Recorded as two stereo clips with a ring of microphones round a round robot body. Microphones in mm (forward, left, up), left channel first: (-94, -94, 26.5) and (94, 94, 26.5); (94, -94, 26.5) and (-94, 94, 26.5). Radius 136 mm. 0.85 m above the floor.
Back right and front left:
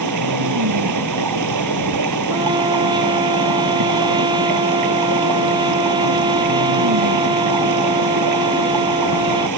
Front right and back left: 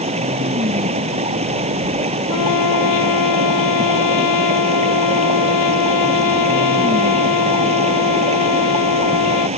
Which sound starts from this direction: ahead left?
Running water, at 0.0 s.